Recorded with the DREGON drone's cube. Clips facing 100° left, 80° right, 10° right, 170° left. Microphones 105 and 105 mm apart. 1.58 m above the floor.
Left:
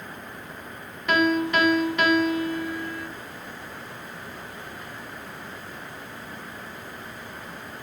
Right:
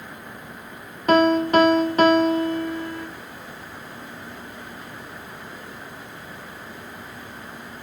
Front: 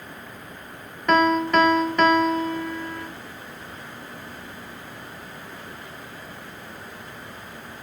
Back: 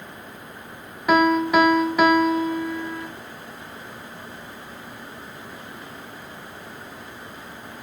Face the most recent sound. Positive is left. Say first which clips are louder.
# right 6 dB, back 1 dB
turn(degrees=-110)